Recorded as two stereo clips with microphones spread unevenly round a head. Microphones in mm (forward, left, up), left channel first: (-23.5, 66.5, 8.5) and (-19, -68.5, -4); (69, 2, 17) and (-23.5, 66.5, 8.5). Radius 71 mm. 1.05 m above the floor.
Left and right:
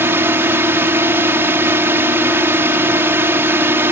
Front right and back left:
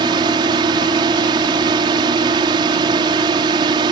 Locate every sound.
0.0 s a drone: 160° right